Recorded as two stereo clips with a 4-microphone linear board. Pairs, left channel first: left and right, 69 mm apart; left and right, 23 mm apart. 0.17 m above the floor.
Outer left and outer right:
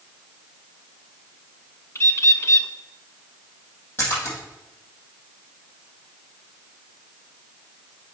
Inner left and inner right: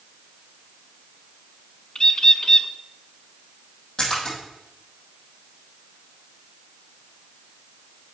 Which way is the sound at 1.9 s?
40° left (ahead or behind).